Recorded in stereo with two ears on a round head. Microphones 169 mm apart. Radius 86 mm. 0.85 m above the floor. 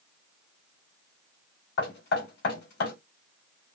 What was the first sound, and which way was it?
Knocking, 65° left (ahead or behind).